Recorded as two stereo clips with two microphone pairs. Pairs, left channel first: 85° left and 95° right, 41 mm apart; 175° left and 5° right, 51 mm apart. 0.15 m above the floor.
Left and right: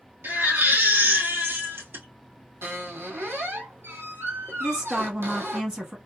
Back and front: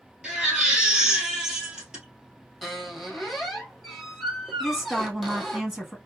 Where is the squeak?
90° right, 1.1 m.